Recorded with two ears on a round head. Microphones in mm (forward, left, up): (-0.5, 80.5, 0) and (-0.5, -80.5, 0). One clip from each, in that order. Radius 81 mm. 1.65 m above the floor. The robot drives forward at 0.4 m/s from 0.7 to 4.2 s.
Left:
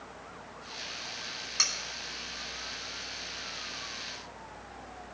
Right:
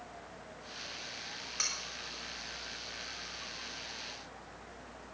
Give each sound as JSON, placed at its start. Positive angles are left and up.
{"t": 1.6, "sound": "cutlery clinking", "side_deg": 30, "distance_m": 3.0}